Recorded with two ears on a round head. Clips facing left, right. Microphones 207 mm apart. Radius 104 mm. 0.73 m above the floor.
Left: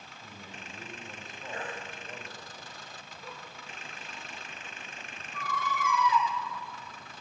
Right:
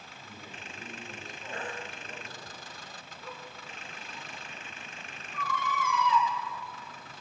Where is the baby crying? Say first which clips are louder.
Even; 15° left (ahead or behind), 6 m.